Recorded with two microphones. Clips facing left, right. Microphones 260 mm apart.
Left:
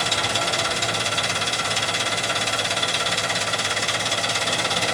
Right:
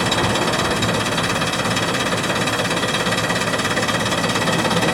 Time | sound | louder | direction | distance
0.0 | an engine running | right 9 dB | 75° right (ahead or behind) | 0.9 m